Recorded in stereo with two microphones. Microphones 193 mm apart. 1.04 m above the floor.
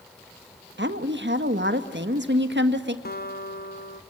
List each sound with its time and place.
0.8 s a woman speaking: 70° right (ahead or behind), 1.6 m
3.0 s a guitar: 55° left (ahead or behind), 1.1 m